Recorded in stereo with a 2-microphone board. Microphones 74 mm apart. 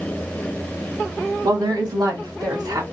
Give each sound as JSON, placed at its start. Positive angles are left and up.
{"t": 1.4, "sound": "a woman speaking", "side_deg": -65, "distance_m": 1.9}